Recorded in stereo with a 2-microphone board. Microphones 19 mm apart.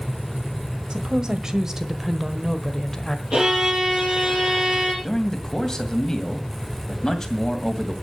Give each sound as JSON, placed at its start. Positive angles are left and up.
{"t": 0.9, "sound": "a woman speaking", "side_deg": -45, "distance_m": 1.7}
{"t": 3.3, "sound": "a violin", "side_deg": -25, "distance_m": 6.0}
{"t": 5.0, "sound": "a man speaking", "side_deg": 25, "distance_m": 2.0}